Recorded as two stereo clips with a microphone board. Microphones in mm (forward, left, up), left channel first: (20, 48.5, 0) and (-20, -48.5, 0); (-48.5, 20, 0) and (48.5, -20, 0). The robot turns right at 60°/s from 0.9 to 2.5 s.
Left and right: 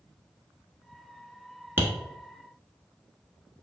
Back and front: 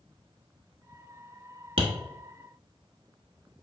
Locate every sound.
1.8 s tapping: 45° right, 1.0 m; by 1.9 s 35° right, 1.0 m